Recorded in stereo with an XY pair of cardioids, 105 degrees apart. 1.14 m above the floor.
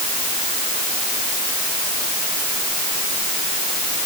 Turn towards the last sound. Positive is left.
No sound to turn to.